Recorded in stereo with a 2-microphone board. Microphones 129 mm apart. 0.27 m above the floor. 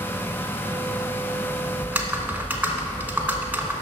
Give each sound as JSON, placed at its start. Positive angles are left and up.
{"t": 1.8, "sound": "typing on a keyboard", "side_deg": -15, "distance_m": 1.0}